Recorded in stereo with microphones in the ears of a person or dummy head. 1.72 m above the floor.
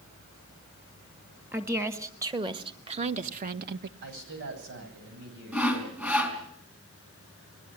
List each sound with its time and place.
1.5 s a woman speaking: 15° right (ahead or behind), 2.5 m; by 3.9 s 55° right (ahead or behind), 1.5 m
4.0 s a man speaking: 60° right (ahead or behind), 9.5 m
5.5 s sawing: 10° right (ahead or behind), 5 m